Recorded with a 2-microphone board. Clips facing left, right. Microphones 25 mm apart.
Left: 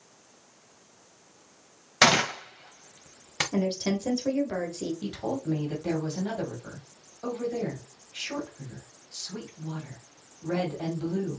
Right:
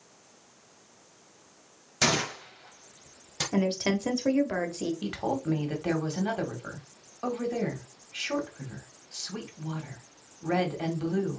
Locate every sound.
2.0 s a gunshot: 55° left (ahead or behind), 0.9 m
3.5 s a woman speaking: 35° right (ahead or behind), 1.1 m
5.0 s a woman speaking: 45° right (ahead or behind), 1.6 m